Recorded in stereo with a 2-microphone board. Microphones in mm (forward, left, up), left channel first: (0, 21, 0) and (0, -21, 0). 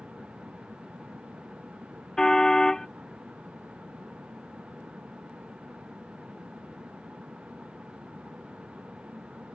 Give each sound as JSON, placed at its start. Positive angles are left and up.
{"t": 2.2, "sound": "a car horn", "side_deg": 15}